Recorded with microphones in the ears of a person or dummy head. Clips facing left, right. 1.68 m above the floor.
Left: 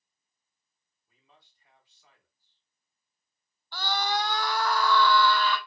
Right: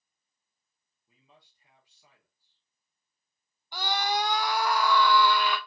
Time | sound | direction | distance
1.1 | a man speaking | 20° right (ahead or behind) | 2 m
3.7 | a scream | 10° right (ahead or behind) | 0.6 m